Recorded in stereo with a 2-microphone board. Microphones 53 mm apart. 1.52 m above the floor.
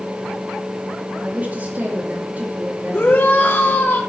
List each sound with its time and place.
1.2 s a woman speaking: 35° right (ahead or behind), 2.5 m
2.9 s a shout: 40° left (ahead or behind), 3 m